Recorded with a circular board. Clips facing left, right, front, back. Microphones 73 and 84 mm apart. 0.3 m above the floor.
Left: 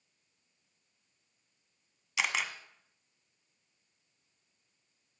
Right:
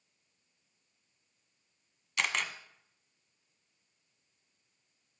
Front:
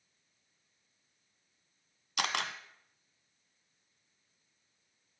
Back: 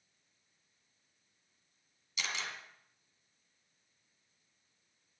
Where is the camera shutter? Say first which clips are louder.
Even, front 6 dB; 5° left, 1.5 m.